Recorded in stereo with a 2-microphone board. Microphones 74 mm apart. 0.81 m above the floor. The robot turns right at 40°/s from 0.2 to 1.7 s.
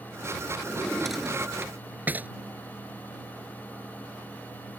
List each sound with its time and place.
0.7 s a drawer: 20° left (ahead or behind); by 2.3 s 25° right (ahead or behind)